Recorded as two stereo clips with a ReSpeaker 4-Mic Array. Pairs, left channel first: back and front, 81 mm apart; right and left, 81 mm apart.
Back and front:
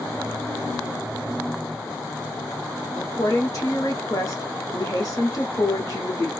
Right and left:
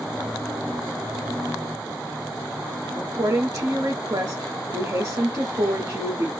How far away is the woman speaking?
About 0.9 m.